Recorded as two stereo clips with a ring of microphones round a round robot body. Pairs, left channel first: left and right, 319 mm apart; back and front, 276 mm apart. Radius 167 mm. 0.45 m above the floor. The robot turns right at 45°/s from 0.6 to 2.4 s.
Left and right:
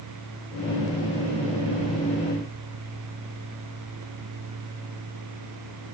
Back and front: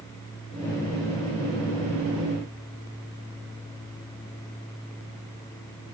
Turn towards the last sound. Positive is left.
No sound to turn to.